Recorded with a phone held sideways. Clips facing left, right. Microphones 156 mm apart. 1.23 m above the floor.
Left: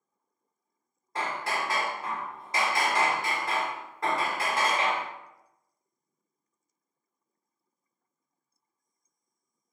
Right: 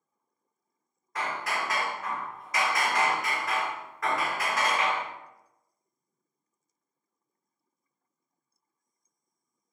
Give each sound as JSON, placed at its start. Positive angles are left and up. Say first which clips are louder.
{"t": 1.1, "sound": "hammering", "louder": "left 1 dB", "side_deg": 30, "distance_m": 0.5}